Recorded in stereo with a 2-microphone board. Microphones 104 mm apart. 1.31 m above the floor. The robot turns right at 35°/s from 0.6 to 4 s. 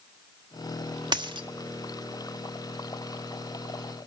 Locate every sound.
1.1 s a dropped coin: 45° right (ahead or behind), 1.0 m; by 1.5 s 50° right (ahead or behind), 1.0 m